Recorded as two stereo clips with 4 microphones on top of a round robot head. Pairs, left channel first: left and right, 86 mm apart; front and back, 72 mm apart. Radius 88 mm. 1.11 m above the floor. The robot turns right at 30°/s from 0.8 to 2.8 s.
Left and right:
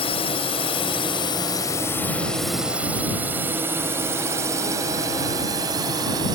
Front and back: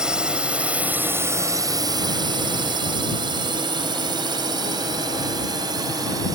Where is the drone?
105° left; by 6.4 s 135° right.